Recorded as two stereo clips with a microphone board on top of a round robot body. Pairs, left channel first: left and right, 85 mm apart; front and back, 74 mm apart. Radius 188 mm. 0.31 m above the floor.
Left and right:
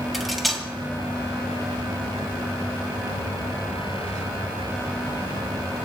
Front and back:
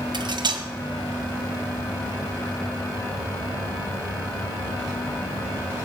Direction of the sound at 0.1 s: Straight behind.